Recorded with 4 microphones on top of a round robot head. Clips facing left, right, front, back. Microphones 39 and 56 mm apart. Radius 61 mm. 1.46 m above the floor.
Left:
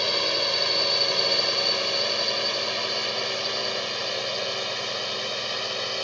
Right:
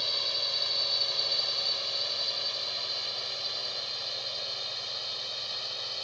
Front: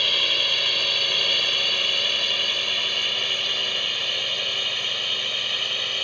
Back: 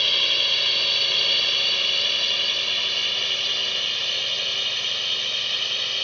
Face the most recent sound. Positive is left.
turn(degrees=85)